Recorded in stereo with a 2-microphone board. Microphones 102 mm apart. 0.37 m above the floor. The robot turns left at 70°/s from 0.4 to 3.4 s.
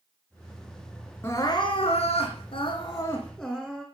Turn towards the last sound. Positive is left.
turn(degrees=10)